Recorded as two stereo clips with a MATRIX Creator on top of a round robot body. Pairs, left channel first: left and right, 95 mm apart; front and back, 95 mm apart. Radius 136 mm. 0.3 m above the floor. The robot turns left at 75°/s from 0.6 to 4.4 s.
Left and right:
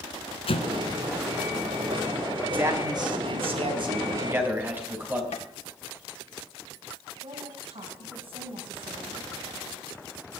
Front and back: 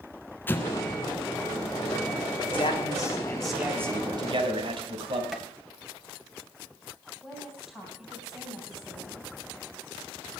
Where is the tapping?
95° left, 1.6 m.